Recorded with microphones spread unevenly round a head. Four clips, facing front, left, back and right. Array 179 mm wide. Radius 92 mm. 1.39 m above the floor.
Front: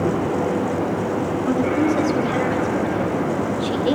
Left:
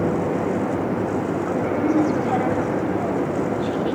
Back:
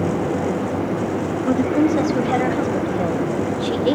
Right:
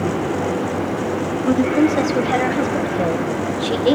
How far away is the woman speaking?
About 9 m.